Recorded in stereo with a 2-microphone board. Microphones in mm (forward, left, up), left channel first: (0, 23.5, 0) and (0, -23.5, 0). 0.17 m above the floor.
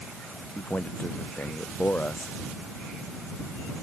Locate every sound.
0.6 s a man speaking: 35° left (ahead or behind)